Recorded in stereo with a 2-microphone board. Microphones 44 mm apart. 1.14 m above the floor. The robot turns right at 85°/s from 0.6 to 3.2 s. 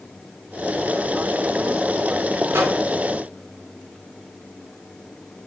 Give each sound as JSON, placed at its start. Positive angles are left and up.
{"t": 2.5, "sound": "a microwave", "side_deg": -80, "distance_m": 2.5}